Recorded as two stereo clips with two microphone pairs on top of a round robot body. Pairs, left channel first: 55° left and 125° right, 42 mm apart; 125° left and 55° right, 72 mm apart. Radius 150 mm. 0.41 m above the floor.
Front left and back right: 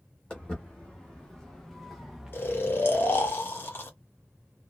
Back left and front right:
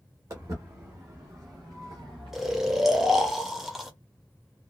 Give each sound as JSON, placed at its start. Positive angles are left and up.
{"t": 0.3, "sound": "footsteps", "azimuth_deg": -5, "distance_m": 1.6}
{"t": 2.3, "sound": "snoring", "azimuth_deg": 35, "distance_m": 1.0}